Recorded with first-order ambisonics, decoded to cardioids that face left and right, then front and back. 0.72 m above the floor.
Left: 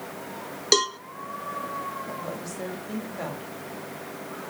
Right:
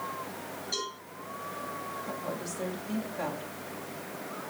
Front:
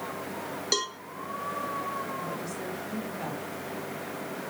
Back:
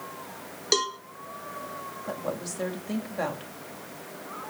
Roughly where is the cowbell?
Left.